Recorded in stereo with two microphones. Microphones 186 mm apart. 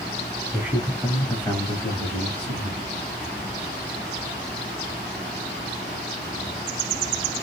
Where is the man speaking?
10° right (ahead or behind), 1.3 m; by 2.8 s 30° left (ahead or behind), 1.7 m.